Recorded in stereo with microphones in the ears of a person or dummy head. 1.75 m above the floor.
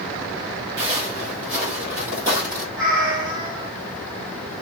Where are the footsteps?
20° right (ahead or behind), 2 m; by 2.6 s centre (ahead or behind), 1.7 m.